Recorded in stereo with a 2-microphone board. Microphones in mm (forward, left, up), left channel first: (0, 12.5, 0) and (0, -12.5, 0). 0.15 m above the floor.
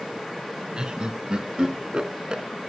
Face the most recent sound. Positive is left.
turn(degrees=-40)  # may be behind; listen again after turning